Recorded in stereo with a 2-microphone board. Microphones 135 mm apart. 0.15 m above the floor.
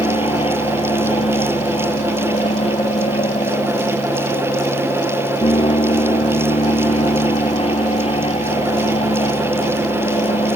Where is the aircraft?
50° left (ahead or behind).